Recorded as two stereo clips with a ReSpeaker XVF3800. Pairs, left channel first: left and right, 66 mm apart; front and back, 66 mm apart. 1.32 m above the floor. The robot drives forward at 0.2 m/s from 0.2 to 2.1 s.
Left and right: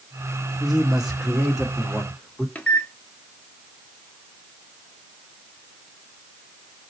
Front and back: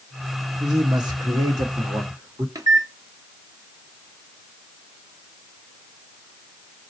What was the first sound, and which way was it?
A man speaking, 175° right.